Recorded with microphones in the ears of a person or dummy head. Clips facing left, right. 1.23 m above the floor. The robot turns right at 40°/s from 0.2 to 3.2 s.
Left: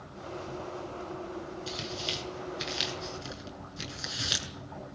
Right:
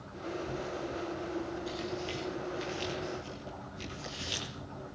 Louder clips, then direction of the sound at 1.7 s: Right 2 dB; 30° left (ahead or behind).